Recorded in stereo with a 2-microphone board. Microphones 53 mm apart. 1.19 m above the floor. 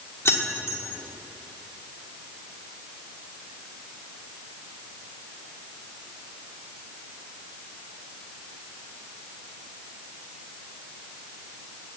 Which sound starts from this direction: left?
Keys jangling, at 0.2 s.